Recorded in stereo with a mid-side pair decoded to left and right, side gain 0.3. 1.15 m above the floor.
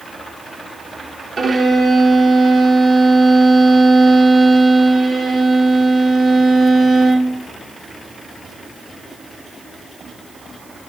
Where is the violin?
50° right, 0.8 m.